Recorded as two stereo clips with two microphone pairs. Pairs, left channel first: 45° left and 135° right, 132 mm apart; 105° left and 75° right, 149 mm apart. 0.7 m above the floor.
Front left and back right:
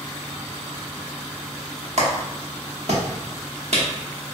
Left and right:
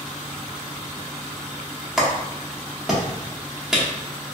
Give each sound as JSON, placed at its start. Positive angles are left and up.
{"t": 2.0, "sound": "a clap", "azimuth_deg": -160, "distance_m": 0.9}